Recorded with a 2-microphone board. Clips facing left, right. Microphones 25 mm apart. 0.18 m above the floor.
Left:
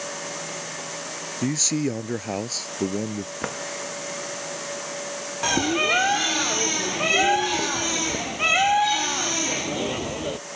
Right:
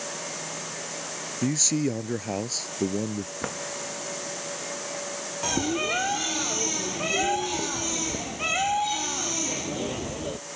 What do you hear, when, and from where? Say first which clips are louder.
1.4 s a man speaking: left 1 dB; 10° left (ahead or behind)
3.4 s a drawer: left 4 dB; 10° left (ahead or behind)
5.4 s a bird: left 5 dB; 25° left (ahead or behind)